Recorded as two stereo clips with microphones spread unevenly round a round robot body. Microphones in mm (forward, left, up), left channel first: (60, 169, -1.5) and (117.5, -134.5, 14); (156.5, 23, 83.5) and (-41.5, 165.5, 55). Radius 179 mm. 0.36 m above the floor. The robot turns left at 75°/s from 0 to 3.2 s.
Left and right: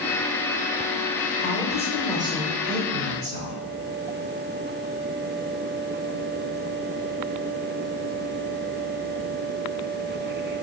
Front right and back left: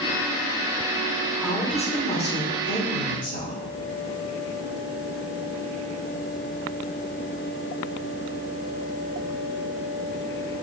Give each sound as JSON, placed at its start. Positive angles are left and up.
{"t": 1.4, "sound": "a woman speaking", "azimuth_deg": 55, "distance_m": 1.2}